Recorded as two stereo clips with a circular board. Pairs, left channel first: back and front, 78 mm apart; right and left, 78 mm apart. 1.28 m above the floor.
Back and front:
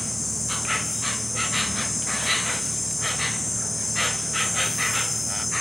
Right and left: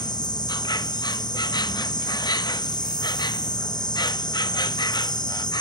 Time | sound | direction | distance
0.0 | an insect | 90° right | 0.7 m